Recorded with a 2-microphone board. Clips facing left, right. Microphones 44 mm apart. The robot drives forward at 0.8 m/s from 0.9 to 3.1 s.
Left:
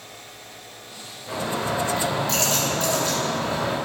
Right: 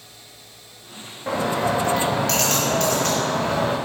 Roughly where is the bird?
Right.